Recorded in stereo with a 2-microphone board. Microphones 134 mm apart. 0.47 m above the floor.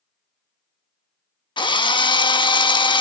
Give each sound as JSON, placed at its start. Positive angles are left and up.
{"t": 1.6, "sound": "a drill", "side_deg": 35, "distance_m": 0.6}